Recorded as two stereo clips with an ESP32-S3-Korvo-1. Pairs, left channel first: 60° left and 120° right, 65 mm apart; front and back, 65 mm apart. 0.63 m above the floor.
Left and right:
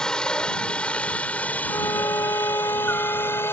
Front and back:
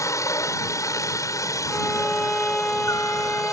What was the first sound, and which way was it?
A helicopter, 15° right.